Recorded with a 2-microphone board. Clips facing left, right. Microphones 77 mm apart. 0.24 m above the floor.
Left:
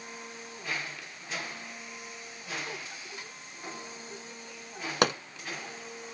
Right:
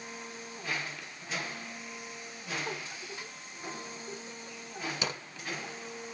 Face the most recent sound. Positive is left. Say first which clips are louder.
# left 12 dB
turn(degrees=65)  # may be behind; listen again after turning